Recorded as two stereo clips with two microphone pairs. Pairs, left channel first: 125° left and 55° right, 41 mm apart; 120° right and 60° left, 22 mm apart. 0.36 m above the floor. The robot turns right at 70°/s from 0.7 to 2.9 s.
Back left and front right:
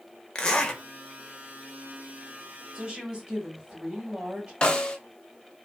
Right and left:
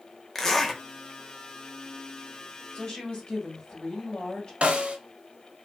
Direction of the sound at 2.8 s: 125° right.